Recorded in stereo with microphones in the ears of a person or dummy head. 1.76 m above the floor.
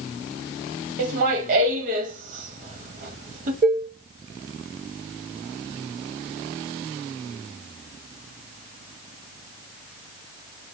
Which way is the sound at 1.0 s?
45° right (ahead or behind).